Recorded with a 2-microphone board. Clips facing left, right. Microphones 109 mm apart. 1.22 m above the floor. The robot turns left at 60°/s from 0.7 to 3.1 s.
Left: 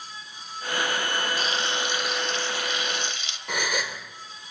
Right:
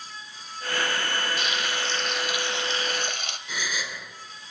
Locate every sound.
1.4 s frying: 50° left, 2 m; by 3.4 s 55° right, 2 m
3.5 s a gasp: 65° left (ahead or behind), 3 m